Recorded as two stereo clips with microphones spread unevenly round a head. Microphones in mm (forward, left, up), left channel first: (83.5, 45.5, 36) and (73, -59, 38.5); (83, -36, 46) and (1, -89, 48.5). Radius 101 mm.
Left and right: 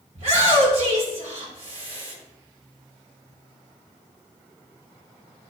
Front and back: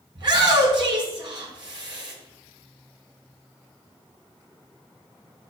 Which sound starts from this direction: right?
A shout, at 0.1 s.